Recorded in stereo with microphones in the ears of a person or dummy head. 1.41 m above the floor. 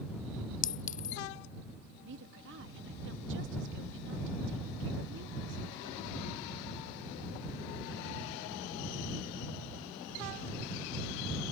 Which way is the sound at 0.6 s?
40° left (ahead or behind).